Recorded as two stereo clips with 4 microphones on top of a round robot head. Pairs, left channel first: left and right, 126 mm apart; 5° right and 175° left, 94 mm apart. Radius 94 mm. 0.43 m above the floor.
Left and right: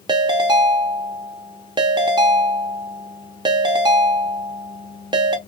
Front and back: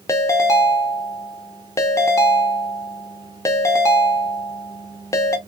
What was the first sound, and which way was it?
A ringtone, 50° right.